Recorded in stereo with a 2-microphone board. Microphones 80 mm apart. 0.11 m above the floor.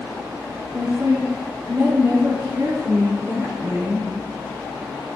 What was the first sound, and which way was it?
A woman speaking, 25° right (ahead or behind).